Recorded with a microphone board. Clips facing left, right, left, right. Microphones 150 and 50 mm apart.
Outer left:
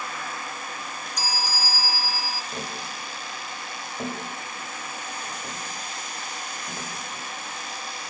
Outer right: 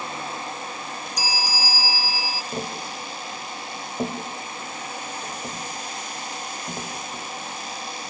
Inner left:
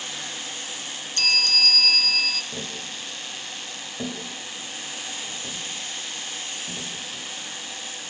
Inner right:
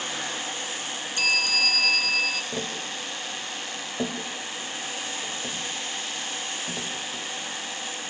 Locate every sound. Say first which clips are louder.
1.2 s a bell: outer right 1 dB, even; 10° right (ahead or behind), 0.6 m
2.5 s tapping: outer right 4 dB, inner right 3 dB; 30° right (ahead or behind), 2 m